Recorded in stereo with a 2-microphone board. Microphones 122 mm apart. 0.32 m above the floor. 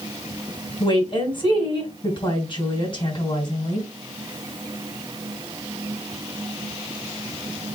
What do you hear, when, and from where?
0.8 s a woman speaking: 45° left (ahead or behind), 2.5 m